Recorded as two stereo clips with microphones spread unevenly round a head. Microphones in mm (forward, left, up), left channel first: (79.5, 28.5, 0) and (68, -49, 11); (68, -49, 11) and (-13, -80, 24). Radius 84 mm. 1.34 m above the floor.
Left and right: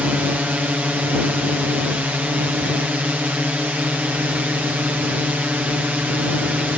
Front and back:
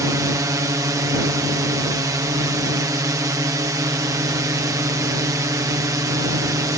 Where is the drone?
170° right.